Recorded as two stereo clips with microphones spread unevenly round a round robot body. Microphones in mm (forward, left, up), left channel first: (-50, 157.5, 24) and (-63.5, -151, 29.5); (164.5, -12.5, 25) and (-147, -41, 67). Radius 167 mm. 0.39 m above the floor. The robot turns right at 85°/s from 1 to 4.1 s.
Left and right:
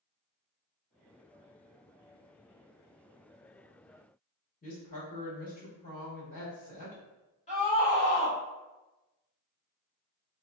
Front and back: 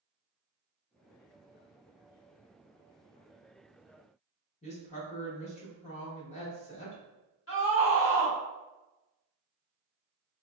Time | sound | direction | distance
4.6 | a woman speaking | 45° left | 1.1 m
7.5 | a scream | 25° left | 1.6 m